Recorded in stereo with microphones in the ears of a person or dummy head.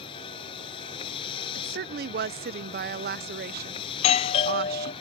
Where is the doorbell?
30° left (ahead or behind).